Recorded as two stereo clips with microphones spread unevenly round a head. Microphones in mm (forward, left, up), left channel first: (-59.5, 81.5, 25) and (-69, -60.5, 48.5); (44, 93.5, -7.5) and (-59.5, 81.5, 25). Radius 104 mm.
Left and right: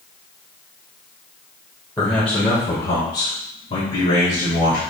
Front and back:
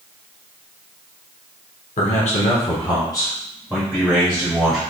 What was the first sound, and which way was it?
A man speaking, 5° left.